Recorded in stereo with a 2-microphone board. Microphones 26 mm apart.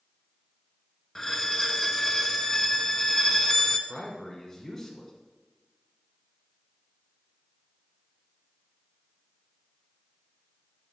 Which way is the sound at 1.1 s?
10° left (ahead or behind).